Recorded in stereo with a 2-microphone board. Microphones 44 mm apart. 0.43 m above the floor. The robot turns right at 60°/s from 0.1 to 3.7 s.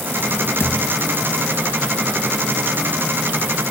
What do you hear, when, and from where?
0.6 s a thud: 60° left (ahead or behind), 1.6 m; by 1.0 s 35° left (ahead or behind), 1.6 m